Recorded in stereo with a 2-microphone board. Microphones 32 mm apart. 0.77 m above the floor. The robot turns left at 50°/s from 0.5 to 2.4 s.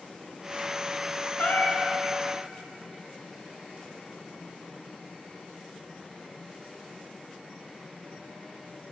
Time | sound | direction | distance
1.4 | a cat meowing | 80° left | 0.9 m